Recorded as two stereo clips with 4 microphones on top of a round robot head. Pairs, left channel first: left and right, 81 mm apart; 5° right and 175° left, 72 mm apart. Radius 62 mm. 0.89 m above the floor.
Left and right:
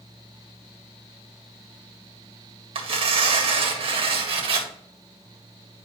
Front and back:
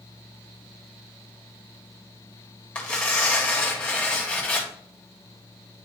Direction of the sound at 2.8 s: 75° right.